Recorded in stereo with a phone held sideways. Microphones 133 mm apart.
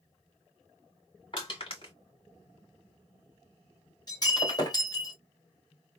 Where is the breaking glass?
30° left (ahead or behind), 2 m.